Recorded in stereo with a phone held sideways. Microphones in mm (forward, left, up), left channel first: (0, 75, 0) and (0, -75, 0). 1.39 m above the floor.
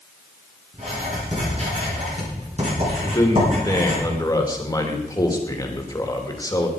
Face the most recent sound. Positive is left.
turn(degrees=25)  # may be behind; listen again after turning